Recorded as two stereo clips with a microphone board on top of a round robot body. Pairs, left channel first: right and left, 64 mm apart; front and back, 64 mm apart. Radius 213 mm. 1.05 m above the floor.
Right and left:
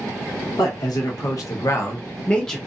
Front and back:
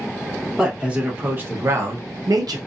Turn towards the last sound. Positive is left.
turn(degrees=-175)